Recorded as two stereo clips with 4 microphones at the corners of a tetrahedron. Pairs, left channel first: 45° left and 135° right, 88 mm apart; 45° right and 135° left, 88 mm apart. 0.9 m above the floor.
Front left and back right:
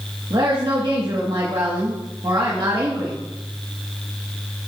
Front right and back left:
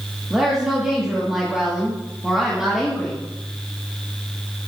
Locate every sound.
0.3 s a woman speaking: 145° right, 1.9 m